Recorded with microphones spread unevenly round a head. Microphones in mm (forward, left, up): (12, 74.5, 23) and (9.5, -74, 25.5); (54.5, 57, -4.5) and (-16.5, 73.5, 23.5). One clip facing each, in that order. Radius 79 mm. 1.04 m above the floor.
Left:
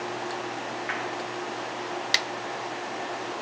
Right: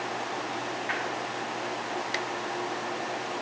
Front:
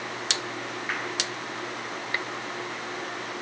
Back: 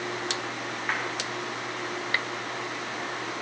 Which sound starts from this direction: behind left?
A clap, at 0.9 s.